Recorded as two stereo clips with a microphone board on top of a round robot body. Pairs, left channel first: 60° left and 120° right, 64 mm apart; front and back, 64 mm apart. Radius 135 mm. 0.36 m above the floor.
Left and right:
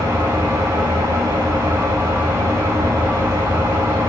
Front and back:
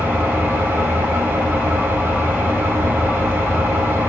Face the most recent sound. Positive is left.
turn(degrees=-115)